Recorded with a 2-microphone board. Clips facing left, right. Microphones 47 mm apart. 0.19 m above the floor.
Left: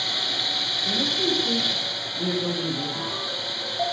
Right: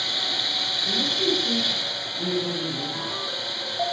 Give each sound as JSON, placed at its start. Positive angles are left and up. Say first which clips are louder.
{"t": 0.8, "sound": "a man speaking", "louder": "even", "side_deg": 15, "distance_m": 7.5}